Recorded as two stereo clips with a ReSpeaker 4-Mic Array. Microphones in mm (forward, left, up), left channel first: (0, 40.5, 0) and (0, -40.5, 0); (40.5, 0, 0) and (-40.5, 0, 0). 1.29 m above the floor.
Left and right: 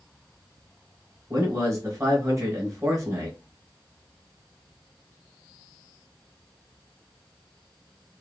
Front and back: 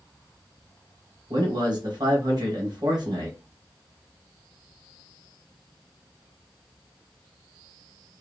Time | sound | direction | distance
1.3 | a man speaking | 145° right | 1.3 m